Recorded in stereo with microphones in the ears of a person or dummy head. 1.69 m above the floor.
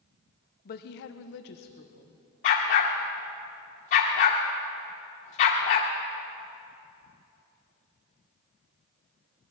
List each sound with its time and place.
0.7 s a woman speaking: 40° left (ahead or behind), 1.0 m
2.4 s a dog barking: 35° left (ahead or behind), 1.5 m